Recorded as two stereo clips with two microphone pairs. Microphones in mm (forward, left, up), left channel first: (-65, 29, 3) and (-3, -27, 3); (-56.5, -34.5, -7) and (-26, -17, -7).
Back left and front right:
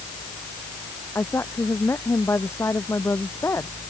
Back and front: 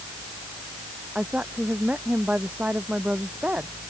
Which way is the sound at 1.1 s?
80° left.